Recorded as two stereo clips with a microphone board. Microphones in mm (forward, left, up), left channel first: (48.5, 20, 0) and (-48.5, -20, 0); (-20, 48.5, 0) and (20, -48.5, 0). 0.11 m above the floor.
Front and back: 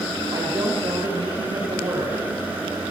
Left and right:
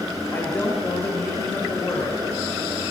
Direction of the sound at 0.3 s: 175° left.